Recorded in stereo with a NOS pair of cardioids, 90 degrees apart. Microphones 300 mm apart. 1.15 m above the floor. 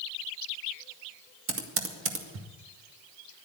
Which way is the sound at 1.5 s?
45° right.